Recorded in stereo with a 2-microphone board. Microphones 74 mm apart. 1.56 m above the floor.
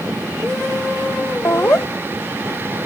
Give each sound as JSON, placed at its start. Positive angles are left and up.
{"t": 1.4, "sound": "laughter", "side_deg": 35}